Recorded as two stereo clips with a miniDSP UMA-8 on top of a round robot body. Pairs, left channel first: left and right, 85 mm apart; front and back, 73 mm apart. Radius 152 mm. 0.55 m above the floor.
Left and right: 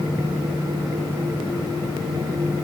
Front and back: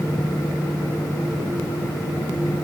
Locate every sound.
Only background noise.